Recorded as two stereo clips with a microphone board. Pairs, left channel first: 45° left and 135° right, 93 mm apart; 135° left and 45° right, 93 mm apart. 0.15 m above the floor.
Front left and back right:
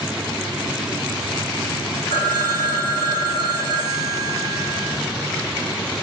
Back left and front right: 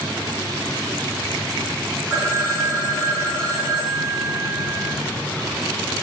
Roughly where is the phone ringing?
Ahead left.